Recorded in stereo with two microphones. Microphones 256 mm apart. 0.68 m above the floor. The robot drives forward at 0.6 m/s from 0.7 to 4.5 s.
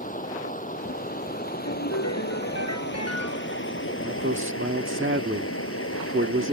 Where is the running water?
30° left (ahead or behind); by 6.5 s 60° left (ahead or behind).